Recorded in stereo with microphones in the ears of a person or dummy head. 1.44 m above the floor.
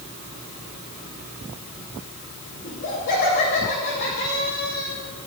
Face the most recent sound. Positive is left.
turn(degrees=75)  # may be behind; listen again after turning